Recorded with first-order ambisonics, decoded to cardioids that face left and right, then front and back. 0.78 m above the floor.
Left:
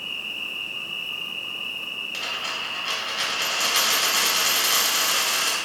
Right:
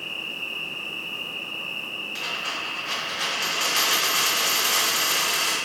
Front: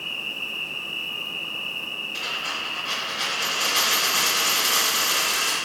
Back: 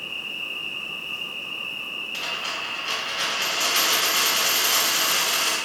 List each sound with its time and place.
0.0 s an insect: 45° left, 1.1 m
2.1 s a dropped coin: 110° left, 1.7 m